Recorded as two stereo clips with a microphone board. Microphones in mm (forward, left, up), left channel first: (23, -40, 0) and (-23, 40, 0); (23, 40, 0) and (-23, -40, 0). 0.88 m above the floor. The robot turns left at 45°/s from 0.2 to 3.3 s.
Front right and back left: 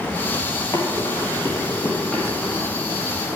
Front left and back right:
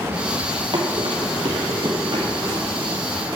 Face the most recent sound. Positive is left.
turn(degrees=180)